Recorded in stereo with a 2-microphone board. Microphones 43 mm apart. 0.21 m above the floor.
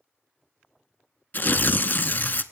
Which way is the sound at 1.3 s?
50° left (ahead or behind).